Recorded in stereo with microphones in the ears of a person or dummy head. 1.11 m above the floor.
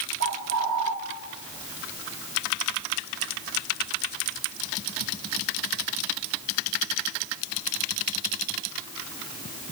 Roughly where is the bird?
Right.